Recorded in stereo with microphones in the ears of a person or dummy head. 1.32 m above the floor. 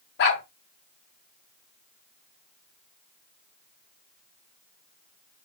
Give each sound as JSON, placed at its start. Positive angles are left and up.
{"t": 0.2, "sound": "a dog barking", "side_deg": 60, "distance_m": 1.9}